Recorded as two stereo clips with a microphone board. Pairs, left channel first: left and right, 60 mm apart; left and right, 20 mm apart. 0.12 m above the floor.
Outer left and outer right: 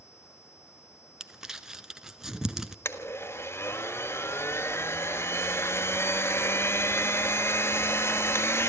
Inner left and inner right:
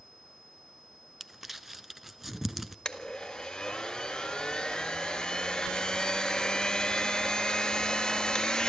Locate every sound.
1.2 s crumpling: 10° right (ahead or behind), 1.1 m
2.9 s a blender: 45° left (ahead or behind), 1.6 m